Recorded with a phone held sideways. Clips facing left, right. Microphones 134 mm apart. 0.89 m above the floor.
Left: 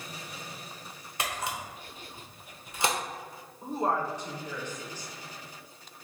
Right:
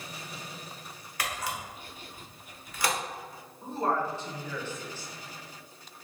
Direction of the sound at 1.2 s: 25° left (ahead or behind).